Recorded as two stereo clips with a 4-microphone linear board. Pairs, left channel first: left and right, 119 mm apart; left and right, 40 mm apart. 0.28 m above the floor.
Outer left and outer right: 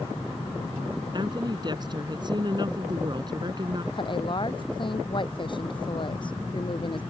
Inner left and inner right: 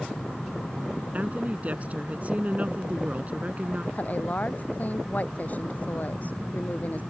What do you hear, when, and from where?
1.1 s a woman speaking: 40° right (ahead or behind)
3.9 s a woman speaking: 45° left (ahead or behind)